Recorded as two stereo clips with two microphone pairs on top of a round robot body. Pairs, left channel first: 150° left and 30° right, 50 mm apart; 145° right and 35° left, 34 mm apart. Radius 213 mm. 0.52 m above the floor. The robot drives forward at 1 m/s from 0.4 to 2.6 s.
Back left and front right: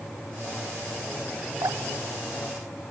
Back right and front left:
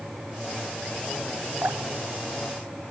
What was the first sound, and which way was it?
Dripping, 10° right.